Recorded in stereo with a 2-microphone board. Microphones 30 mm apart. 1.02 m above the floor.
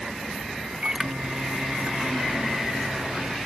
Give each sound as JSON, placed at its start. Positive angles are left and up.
{"t": 0.8, "sound": "a microwave", "side_deg": -30}